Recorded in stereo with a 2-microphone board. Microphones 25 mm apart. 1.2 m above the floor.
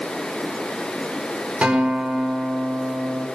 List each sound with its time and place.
1.6 s a guitar: 60° right (ahead or behind), 4 m